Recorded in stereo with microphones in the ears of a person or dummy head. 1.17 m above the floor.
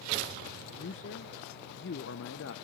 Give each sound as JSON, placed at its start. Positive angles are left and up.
{"t": 0.8, "sound": "a man speaking", "side_deg": 55, "distance_m": 0.8}